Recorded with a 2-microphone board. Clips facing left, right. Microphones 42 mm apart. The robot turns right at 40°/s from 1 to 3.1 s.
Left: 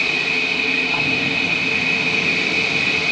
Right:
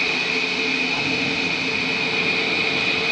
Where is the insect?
30° left, 0.8 m; by 3.1 s 110° left, 0.8 m.